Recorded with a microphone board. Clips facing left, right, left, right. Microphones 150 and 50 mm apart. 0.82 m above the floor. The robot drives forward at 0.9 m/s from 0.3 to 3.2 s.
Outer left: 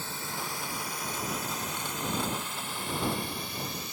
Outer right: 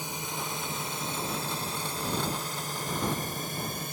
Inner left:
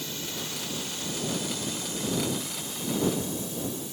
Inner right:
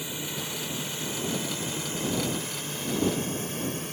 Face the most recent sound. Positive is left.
turn(degrees=-50)  # may be behind; listen again after turning